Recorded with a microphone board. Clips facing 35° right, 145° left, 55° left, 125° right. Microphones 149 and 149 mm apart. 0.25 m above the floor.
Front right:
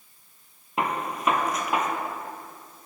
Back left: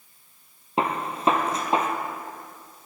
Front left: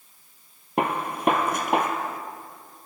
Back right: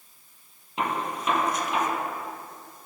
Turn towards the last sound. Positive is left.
turn(degrees=85)